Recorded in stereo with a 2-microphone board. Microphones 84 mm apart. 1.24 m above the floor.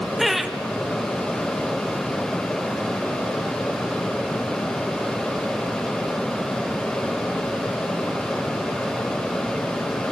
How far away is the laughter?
About 1.6 m.